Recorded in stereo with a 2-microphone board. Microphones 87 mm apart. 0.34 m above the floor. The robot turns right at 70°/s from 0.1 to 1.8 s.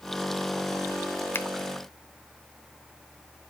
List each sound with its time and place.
1.3 s a finger snap: 25° left (ahead or behind), 0.8 m